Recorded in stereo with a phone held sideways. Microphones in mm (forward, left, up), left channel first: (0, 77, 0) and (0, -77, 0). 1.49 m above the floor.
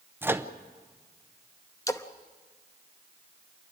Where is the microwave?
15° right (ahead or behind), 0.7 m.